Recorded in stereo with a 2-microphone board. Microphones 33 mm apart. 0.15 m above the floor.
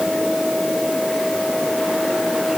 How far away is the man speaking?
No man speaking in this recording.